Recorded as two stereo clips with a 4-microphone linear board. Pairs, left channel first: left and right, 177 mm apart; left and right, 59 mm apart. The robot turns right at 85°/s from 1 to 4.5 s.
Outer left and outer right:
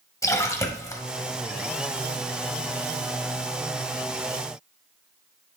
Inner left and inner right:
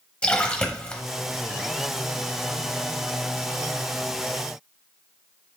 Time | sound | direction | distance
0.2 | a splash | 15° left (ahead or behind) | 0.9 m